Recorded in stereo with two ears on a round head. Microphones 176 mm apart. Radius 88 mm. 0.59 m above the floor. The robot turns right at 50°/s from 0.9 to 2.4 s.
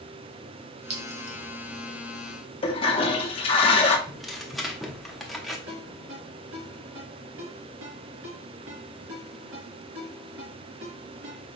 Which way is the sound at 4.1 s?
Centre (ahead or behind).